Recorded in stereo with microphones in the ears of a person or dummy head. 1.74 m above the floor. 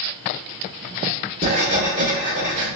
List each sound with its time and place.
1.4 s writing: 40° right (ahead or behind), 1.5 m